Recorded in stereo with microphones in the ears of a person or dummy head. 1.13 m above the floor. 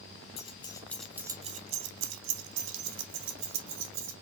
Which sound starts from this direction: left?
Keys jangling, at 0.4 s.